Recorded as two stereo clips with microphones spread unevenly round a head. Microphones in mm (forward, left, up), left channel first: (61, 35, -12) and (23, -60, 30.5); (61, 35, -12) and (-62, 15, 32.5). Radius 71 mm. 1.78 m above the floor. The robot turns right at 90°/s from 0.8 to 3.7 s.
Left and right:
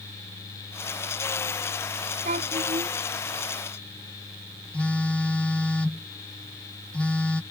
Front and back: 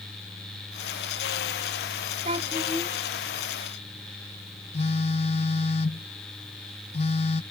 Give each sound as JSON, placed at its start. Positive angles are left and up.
{"t": 2.2, "sound": "a child speaking", "azimuth_deg": -125}
{"t": 4.7, "sound": "a phone buzzing", "azimuth_deg": -40}